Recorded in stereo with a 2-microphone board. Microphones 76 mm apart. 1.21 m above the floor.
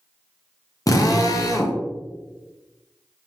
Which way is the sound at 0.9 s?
45° left (ahead or behind).